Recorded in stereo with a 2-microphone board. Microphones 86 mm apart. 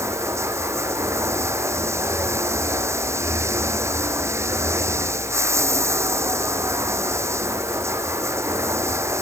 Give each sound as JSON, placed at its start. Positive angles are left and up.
{"t": 0.0, "sound": "running water", "side_deg": -30}